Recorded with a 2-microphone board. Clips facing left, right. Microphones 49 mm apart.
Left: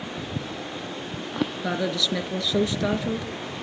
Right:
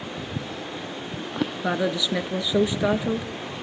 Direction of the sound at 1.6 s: 15° right (ahead or behind).